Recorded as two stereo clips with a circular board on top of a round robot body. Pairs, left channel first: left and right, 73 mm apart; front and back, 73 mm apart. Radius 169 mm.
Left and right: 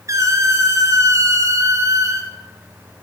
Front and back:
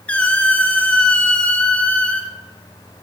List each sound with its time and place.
0.1 s a squeak: 65° right, 0.8 m